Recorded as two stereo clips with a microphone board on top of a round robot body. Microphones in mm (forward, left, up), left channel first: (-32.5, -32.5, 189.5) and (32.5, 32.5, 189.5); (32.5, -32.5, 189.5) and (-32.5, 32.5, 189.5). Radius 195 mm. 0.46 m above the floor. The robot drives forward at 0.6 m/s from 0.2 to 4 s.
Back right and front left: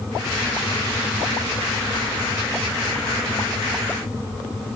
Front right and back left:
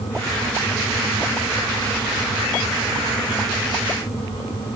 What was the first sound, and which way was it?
Only background noise.